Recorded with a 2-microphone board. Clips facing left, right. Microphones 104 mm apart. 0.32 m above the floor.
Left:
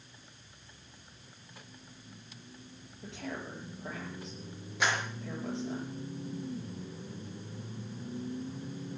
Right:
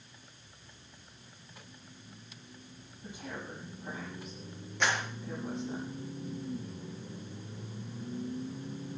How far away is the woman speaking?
About 9 m.